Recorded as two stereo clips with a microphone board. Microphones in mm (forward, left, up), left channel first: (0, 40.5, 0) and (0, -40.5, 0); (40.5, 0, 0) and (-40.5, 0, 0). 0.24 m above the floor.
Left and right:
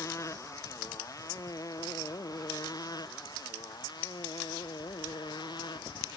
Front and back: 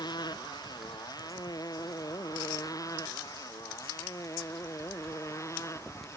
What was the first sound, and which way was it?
A motorcycle, 35° left.